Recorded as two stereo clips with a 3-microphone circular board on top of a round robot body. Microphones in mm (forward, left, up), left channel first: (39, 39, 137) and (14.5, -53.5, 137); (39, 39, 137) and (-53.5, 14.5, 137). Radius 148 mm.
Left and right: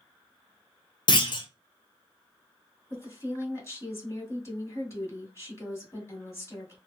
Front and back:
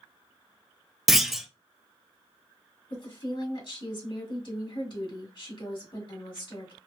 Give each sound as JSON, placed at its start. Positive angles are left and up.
{"t": 1.1, "sound": "a clunk", "azimuth_deg": 105, "distance_m": 0.8}
{"t": 2.9, "sound": "a woman speaking", "azimuth_deg": 20, "distance_m": 1.6}